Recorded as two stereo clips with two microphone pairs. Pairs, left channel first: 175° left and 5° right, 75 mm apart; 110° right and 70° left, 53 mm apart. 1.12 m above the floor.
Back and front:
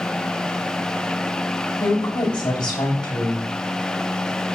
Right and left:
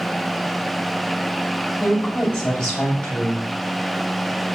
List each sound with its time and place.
1.8 s a woman speaking: 175° right, 6.5 m